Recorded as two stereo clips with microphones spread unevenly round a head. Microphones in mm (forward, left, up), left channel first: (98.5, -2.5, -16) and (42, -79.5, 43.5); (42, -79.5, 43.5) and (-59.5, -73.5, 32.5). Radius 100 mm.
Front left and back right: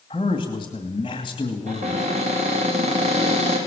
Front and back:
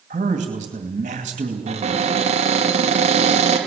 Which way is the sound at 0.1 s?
130° left.